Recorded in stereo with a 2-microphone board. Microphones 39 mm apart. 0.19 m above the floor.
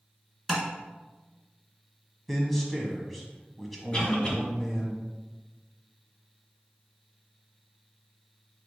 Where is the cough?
25° left (ahead or behind), 1.4 m.